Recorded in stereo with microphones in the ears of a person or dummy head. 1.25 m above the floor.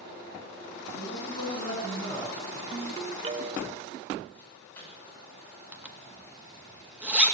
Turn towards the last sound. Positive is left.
turn(degrees=-5)  # may be behind; listen again after turning